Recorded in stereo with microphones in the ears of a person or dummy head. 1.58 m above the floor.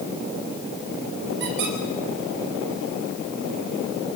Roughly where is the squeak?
Right.